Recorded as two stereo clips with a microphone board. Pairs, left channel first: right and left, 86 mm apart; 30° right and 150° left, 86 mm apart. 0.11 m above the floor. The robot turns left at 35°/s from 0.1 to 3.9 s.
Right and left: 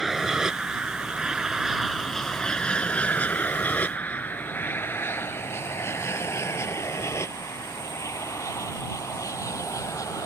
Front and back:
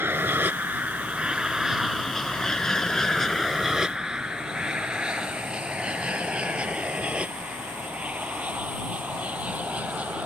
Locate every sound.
0.0 s an aircraft: 175° left; by 10.3 s 135° right